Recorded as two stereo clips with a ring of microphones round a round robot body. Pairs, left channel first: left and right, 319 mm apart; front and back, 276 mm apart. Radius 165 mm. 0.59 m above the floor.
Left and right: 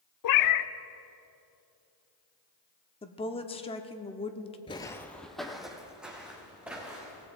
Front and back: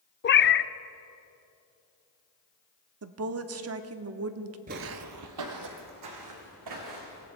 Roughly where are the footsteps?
Behind left.